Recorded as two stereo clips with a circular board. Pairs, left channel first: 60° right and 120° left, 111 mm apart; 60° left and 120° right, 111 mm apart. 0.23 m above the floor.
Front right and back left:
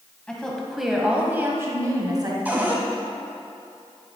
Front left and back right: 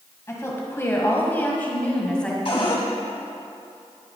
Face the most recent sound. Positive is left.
turn(degrees=50)